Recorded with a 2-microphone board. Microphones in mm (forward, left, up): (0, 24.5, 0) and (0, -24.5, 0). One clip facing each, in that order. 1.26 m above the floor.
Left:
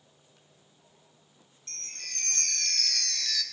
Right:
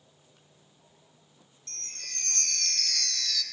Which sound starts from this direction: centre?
A chime, at 1.7 s.